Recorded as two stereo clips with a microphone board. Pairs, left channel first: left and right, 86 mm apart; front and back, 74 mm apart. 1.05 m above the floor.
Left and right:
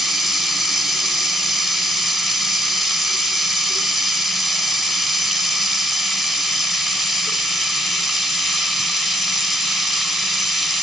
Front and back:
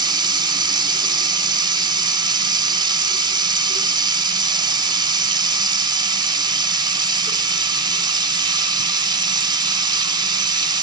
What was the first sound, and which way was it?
Running water, straight behind.